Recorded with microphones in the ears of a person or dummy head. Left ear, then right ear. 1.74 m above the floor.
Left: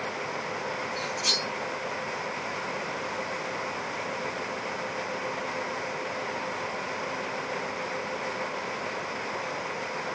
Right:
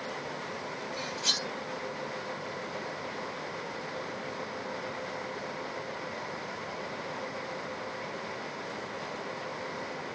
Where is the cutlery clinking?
60° left (ahead or behind), 2.5 m.